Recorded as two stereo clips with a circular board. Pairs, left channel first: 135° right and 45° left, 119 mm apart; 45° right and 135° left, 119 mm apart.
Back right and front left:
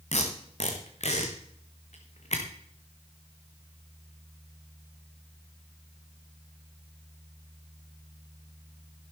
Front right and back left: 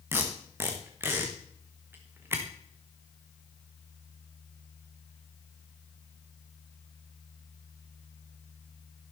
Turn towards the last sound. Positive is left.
turn(degrees=-155)